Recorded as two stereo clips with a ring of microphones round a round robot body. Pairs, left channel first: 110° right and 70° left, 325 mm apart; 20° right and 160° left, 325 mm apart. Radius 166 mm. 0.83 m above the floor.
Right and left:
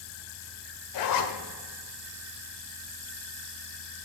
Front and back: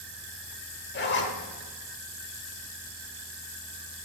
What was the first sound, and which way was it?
A zipper, 80° right.